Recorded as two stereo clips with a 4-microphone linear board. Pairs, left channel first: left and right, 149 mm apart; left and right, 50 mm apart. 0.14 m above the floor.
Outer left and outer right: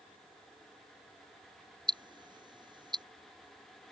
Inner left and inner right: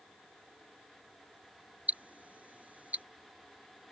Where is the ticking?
30° right (ahead or behind).